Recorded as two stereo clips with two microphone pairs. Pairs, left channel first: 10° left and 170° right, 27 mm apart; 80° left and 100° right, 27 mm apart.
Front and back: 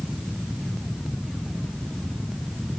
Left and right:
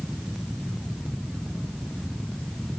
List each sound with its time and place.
Only background noise.